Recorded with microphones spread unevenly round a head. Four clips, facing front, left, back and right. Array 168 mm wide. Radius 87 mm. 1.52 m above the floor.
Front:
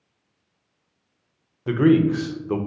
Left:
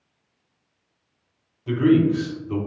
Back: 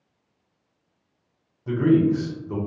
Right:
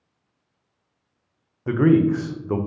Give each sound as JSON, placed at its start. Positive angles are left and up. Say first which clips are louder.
{"t": 1.7, "sound": "a man speaking", "louder": "even, front 2 dB", "azimuth_deg": -45, "distance_m": 0.5}